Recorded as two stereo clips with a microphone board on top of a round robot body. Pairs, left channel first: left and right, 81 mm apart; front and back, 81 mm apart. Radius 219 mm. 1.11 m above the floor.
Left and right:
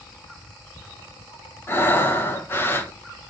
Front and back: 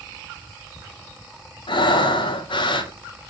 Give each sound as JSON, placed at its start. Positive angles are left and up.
{"t": 1.7, "sound": "breathing", "azimuth_deg": 25, "distance_m": 0.9}